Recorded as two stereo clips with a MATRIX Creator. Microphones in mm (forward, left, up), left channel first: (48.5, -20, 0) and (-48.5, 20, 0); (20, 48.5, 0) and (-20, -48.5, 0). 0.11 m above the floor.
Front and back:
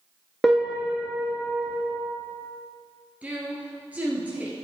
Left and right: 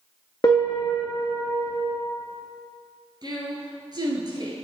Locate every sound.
0.4 s a piano: 70° left, 1.2 m
3.2 s a woman speaking: 135° right, 1.5 m